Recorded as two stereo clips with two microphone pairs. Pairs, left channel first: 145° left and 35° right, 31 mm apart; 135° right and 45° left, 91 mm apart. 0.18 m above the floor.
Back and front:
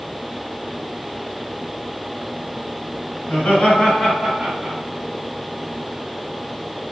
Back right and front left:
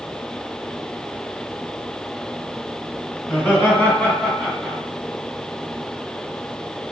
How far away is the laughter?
About 1.6 m.